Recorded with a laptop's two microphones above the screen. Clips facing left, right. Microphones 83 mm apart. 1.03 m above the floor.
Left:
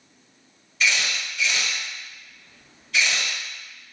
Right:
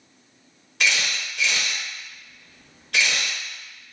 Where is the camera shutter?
70° right (ahead or behind), 0.9 m.